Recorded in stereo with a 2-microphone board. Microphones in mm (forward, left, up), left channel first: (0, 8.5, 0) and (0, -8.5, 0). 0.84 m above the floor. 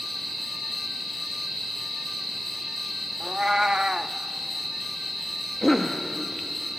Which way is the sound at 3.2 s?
50° right (ahead or behind).